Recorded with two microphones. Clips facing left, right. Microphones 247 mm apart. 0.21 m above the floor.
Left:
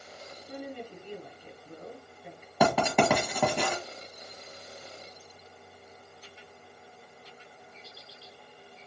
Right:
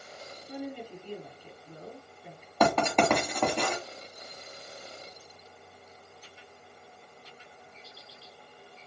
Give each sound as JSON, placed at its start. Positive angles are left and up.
{"t": 0.5, "sound": "a woman speaking", "side_deg": 50, "distance_m": 1.8}
{"t": 2.6, "sound": "writing", "side_deg": 5, "distance_m": 1.4}